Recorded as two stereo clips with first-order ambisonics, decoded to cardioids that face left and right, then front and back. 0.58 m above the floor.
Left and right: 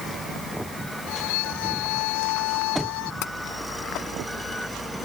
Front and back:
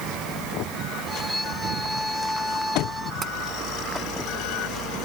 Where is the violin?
90° left.